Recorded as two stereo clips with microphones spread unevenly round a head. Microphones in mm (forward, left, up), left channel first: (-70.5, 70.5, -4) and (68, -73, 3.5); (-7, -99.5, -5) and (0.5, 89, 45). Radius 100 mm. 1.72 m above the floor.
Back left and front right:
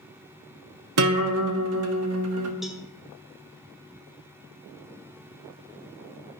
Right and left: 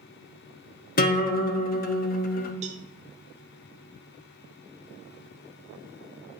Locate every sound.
1.0 s a guitar: 40° right, 0.7 m
2.6 s a cowbell: 45° left, 0.5 m